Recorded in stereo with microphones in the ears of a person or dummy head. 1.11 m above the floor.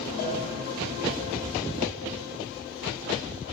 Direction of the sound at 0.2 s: 65° left (ahead or behind).